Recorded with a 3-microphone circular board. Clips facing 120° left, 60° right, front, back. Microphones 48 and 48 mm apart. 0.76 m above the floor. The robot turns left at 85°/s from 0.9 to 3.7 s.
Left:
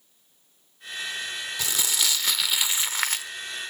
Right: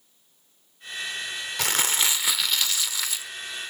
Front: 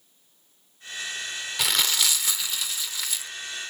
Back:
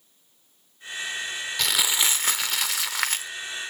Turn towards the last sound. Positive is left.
turn(degrees=100)